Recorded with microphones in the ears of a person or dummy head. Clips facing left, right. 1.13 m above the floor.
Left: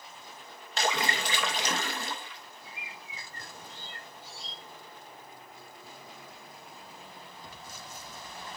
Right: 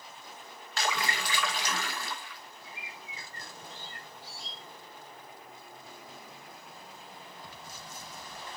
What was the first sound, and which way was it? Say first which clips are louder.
A splash: left 3 dB; 20° left (ahead or behind).